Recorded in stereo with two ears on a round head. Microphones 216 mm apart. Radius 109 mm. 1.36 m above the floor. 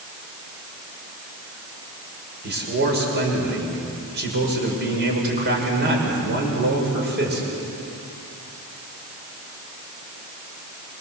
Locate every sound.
2.4 s a man speaking: 45° right (ahead or behind), 6.5 m